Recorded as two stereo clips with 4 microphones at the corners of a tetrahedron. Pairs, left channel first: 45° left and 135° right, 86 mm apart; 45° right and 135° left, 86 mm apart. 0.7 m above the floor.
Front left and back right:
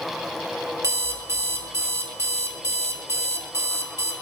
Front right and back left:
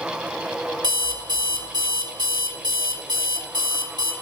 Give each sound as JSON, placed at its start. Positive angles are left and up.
{"t": 0.8, "sound": "an alarm clock", "azimuth_deg": 170, "distance_m": 1.1}